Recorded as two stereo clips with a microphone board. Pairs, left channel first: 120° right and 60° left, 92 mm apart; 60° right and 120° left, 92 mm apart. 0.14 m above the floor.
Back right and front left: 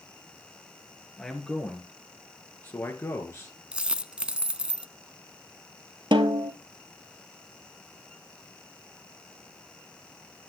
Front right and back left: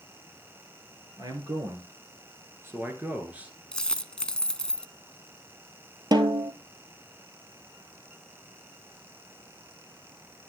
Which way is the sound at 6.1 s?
85° left.